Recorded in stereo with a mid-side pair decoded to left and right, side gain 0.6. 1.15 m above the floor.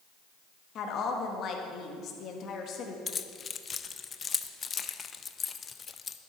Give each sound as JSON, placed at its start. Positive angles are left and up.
{"t": 0.8, "sound": "a woman speaking", "azimuth_deg": 50, "distance_m": 1.6}
{"t": 3.1, "sound": "keys jangling", "azimuth_deg": 30, "distance_m": 0.6}